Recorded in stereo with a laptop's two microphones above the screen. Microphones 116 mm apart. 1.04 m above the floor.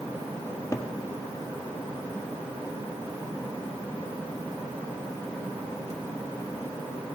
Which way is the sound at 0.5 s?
30° left (ahead or behind).